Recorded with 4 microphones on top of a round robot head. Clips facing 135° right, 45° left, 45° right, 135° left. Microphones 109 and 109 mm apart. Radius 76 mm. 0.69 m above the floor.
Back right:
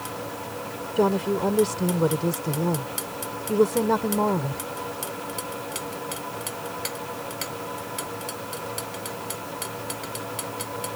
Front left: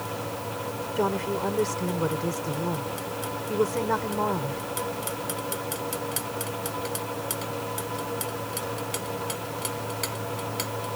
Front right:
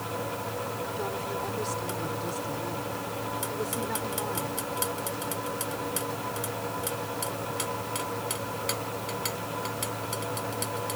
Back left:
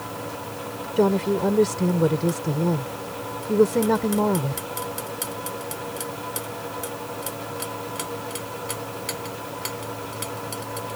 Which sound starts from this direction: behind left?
A woman speaking, at 1.0 s.